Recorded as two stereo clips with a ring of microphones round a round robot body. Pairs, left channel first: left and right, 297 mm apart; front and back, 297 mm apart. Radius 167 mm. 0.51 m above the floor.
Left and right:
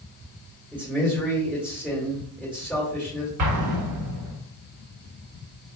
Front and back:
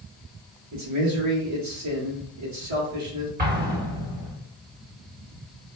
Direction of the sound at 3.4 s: 120° right.